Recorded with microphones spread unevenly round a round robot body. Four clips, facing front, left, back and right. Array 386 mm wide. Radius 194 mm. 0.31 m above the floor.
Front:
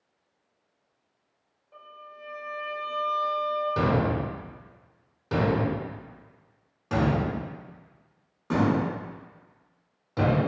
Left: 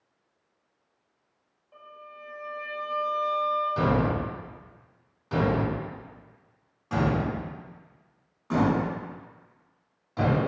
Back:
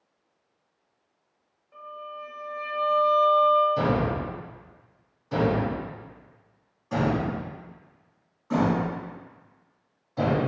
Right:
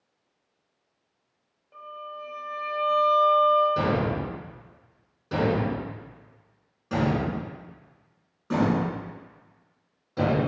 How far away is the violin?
About 1.0 m.